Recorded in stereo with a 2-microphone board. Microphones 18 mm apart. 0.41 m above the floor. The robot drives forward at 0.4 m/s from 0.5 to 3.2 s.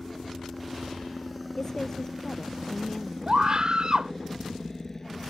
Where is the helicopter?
10° left (ahead or behind); by 5.3 s 20° left (ahead or behind).